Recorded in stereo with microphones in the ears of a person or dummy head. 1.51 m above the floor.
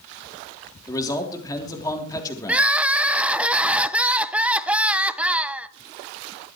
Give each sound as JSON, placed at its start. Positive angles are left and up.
{"t": 0.9, "sound": "a man speaking", "side_deg": 20, "distance_m": 3.0}
{"t": 2.5, "sound": "crying", "side_deg": -5, "distance_m": 0.5}